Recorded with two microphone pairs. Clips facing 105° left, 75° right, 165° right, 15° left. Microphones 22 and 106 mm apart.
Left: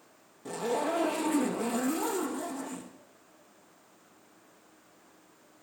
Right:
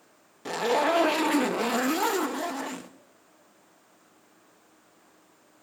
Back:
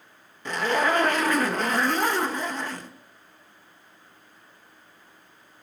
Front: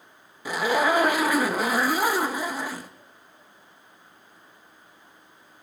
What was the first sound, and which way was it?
A zipper, 65° right.